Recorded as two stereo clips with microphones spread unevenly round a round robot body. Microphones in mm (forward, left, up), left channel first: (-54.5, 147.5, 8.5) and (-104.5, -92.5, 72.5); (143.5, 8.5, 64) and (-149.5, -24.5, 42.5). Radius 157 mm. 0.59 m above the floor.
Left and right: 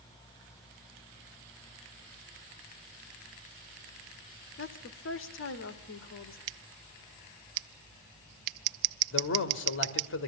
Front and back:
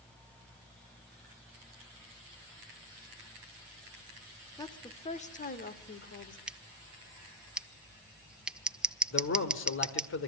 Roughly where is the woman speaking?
Left.